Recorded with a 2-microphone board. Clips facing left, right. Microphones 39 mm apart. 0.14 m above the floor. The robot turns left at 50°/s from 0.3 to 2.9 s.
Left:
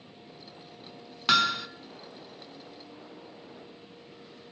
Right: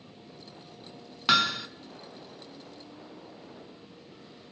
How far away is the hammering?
About 1.4 m.